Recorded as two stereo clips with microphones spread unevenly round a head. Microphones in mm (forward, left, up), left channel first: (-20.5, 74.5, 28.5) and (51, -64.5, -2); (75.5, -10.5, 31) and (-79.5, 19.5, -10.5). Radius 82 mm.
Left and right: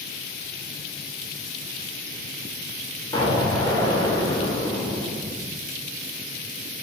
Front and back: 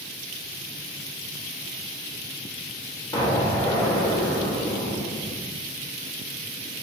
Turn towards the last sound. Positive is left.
turn(degrees=55)